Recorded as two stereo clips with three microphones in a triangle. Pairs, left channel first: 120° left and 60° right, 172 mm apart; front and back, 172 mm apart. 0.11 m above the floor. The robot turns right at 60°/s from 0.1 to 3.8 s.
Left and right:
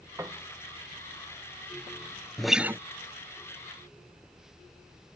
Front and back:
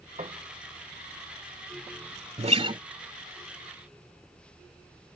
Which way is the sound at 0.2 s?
135° right.